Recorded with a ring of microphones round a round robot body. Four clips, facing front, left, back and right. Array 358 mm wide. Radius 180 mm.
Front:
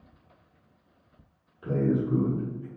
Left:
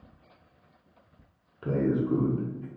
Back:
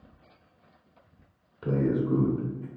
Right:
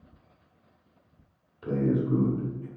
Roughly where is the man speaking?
Behind left.